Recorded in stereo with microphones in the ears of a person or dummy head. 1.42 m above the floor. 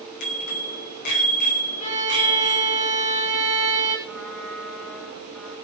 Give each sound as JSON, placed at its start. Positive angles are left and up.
{"t": 0.2, "sound": "a bicycle bell", "side_deg": 60, "distance_m": 5.5}
{"t": 1.8, "sound": "a violin", "side_deg": 40, "distance_m": 5.5}
{"t": 4.0, "sound": "a trumpet", "side_deg": 0, "distance_m": 7.5}